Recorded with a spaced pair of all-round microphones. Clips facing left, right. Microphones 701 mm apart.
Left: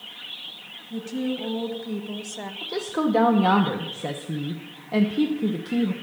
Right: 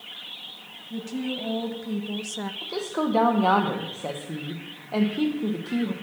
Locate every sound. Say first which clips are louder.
0.9 s a woman speaking: left 3 dB; centre (ahead or behind), 1.8 m; by 2.5 s 50° right (ahead or behind), 1.0 m
2.6 s a woman speaking: left 3 dB; 50° left (ahead or behind), 1.1 m